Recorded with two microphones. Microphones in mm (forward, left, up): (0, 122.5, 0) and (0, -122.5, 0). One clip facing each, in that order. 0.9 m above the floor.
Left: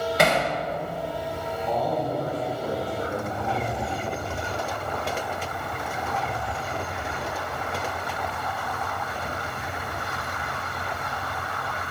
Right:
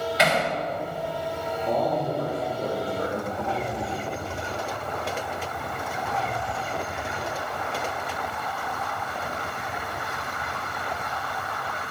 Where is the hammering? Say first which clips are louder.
Left 2 dB; 50° left (ahead or behind), 3 m.